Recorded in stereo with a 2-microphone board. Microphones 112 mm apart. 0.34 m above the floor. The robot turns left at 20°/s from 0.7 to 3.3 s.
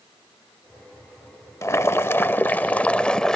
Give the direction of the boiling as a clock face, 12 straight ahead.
11 o'clock.